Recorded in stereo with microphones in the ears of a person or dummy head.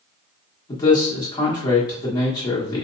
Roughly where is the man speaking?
Centre.